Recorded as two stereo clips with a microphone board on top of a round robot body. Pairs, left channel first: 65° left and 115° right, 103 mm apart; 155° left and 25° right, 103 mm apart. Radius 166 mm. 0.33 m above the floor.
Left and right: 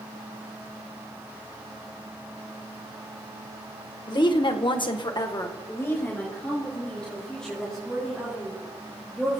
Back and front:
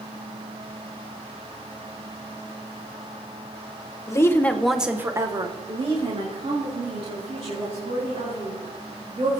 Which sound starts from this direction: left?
A woman speaking, at 4.1 s.